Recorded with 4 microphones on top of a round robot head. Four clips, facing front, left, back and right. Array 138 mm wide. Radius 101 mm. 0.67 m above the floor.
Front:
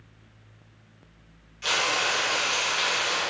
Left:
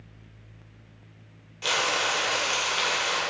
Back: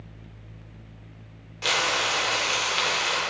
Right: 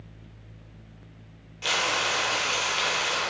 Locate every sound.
1.6 s frying: 170° left, 2 m